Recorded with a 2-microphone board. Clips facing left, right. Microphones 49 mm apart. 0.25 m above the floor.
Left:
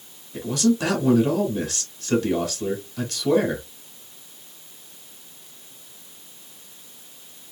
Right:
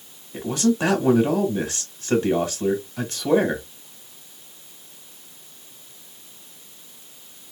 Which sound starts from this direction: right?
A man speaking, at 0.3 s.